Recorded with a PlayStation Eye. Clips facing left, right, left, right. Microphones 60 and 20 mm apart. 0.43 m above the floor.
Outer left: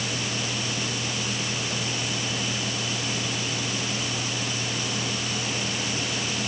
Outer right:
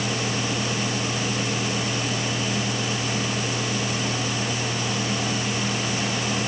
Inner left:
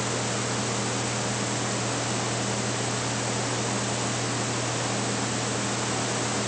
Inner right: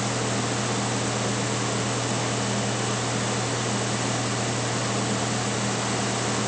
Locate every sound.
Only background noise.